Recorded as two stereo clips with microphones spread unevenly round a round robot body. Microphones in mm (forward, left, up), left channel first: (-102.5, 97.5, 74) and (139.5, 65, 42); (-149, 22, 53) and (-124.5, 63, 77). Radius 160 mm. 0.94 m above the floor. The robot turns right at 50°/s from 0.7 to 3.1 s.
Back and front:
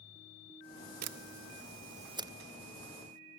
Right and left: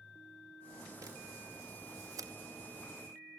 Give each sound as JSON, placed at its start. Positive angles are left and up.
{"t": 1.0, "sound": "a camera shutter", "azimuth_deg": 5, "distance_m": 0.9}